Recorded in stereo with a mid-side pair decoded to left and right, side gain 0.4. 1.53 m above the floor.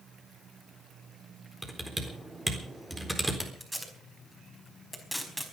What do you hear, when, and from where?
1.6 s typing on a keyboard: 15° right, 4 m
3.6 s tape being pulled: straight ahead, 4.5 m